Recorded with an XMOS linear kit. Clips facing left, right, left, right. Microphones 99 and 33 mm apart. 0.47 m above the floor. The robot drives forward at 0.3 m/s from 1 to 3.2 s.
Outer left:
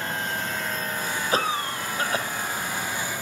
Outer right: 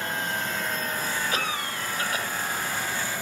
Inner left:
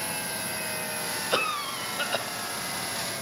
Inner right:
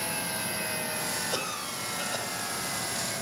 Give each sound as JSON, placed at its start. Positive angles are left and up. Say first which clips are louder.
{"t": 1.3, "sound": "a cough", "louder": "outer left 4 dB, inner left 6 dB", "side_deg": 35, "distance_m": 1.9}